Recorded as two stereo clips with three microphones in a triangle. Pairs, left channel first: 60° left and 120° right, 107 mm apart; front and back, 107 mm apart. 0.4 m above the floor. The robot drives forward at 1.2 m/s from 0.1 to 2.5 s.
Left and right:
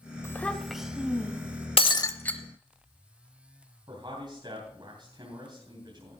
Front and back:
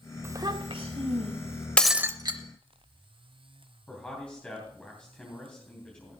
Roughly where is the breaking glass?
Left.